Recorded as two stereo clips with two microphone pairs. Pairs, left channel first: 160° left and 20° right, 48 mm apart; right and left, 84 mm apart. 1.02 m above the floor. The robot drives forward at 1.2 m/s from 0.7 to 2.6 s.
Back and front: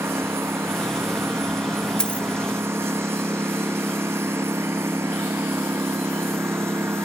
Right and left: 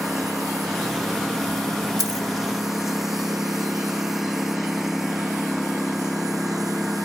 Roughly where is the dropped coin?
Left.